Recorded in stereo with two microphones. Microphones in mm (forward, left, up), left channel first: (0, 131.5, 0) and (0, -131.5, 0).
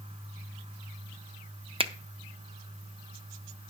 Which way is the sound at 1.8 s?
20° right (ahead or behind).